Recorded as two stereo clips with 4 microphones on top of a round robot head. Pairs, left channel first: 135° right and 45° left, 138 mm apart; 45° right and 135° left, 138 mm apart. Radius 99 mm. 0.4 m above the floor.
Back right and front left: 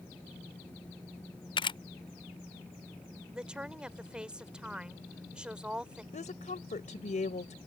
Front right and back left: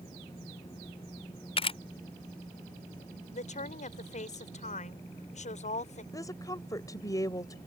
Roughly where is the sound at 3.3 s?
Ahead right.